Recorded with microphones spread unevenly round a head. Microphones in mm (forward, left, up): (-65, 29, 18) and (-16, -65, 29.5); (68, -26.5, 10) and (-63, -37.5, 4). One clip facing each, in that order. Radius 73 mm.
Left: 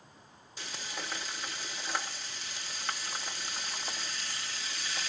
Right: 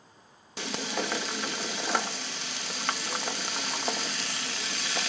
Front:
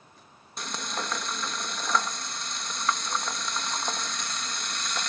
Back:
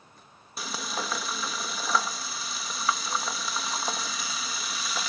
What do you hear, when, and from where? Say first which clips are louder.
0.6 s frying: right 10 dB, back 1 dB; 90° right